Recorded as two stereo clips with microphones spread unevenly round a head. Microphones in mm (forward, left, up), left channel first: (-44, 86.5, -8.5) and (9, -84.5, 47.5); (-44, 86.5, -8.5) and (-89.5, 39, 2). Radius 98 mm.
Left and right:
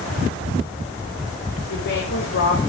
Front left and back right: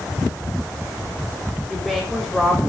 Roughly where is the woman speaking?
Behind left.